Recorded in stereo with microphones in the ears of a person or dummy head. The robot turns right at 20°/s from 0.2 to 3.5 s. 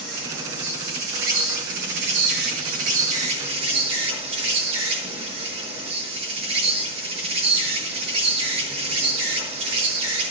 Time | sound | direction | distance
0.0 | an insect | 100° right | 4 m